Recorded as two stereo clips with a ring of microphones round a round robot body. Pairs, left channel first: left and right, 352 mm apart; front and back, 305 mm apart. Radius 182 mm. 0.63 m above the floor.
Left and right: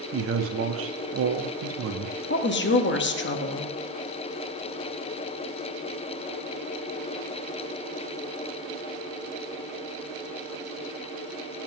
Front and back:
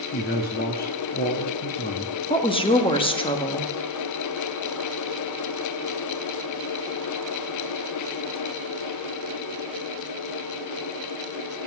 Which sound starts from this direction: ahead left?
A woman speaking, at 2.3 s.